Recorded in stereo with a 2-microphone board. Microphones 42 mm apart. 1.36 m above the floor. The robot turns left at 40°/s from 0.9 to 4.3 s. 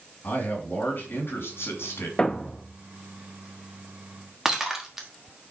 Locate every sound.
0.2 s a man speaking: 130° left, 3 m; by 2.1 s 85° left, 3 m
2.2 s a thud: 25° left (ahead or behind), 0.7 m; by 2.8 s 15° left (ahead or behind), 0.7 m
4.5 s breaking glass: 10° right (ahead or behind), 1.4 m